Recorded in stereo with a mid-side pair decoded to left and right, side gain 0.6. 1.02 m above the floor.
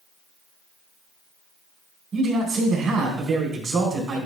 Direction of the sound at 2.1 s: 35° right.